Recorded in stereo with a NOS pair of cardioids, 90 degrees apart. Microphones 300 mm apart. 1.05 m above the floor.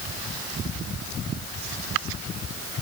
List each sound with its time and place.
Only background noise.